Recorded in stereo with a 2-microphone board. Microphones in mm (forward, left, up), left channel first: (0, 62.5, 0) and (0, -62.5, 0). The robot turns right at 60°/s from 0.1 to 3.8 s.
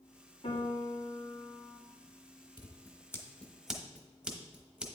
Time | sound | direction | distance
0.4 | a piano | 115° left | 2.5 m
2.6 | scissors | 40° left (ahead or behind) | 0.9 m